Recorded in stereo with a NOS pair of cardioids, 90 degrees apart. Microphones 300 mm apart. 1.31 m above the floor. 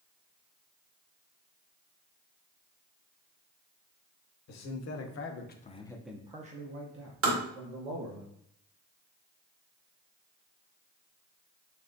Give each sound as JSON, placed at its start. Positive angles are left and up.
{"t": 4.5, "sound": "a man speaking", "azimuth_deg": 65, "distance_m": 1.1}
{"t": 7.2, "sound": "tapping", "azimuth_deg": -45, "distance_m": 1.4}